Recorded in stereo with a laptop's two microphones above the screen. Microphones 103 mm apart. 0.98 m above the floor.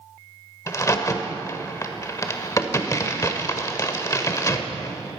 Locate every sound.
0.7 s a crack: 30° left (ahead or behind), 1.1 m